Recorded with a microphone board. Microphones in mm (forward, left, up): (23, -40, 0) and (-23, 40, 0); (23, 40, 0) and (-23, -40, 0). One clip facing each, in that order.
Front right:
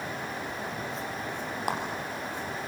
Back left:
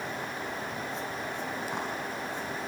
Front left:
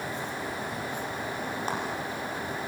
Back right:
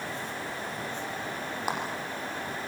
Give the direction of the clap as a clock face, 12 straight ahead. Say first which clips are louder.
Front right 8 dB, back right 1 dB; 1 o'clock.